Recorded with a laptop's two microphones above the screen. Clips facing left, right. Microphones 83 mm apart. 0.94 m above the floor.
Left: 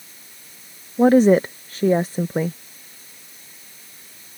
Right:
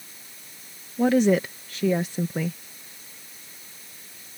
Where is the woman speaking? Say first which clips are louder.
Left 6 dB; 40° left (ahead or behind).